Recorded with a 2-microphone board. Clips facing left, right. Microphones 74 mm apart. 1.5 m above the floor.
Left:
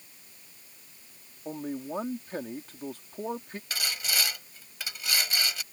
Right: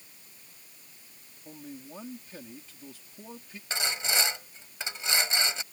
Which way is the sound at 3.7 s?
20° right (ahead or behind).